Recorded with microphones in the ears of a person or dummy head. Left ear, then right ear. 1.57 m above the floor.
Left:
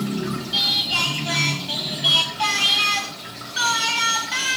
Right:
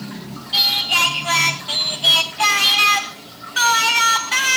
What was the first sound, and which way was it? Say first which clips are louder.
Singing: right 4 dB; 30° right (ahead or behind).